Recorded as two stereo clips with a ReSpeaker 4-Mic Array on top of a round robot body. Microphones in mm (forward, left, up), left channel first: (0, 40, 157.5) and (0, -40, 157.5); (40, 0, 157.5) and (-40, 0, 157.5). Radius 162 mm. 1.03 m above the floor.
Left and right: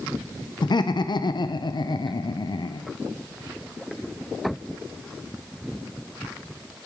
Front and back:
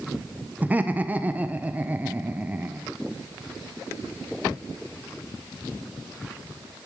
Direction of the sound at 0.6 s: 110° left.